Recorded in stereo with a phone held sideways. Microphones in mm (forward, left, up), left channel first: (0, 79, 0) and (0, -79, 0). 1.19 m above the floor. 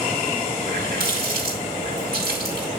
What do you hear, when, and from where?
0.6 s a running tap: 80° right, 6 m